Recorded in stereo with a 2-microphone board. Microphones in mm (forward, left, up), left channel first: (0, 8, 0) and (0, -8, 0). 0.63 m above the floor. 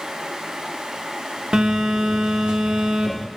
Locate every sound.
1.5 s a phone buzzing: 70° right (ahead or behind), 0.8 m